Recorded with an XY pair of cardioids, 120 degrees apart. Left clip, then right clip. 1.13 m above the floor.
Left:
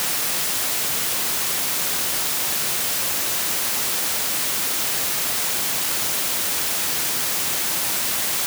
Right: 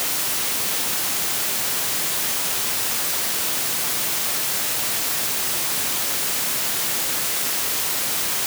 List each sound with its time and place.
Only background noise.